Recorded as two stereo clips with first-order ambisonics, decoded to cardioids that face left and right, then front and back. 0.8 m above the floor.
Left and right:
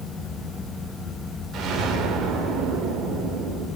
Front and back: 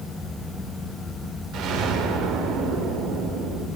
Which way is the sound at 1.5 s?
145° right.